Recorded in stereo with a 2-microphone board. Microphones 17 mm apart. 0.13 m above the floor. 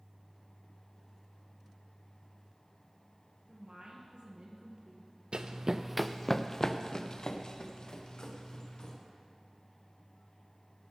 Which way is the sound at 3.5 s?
60° right (ahead or behind).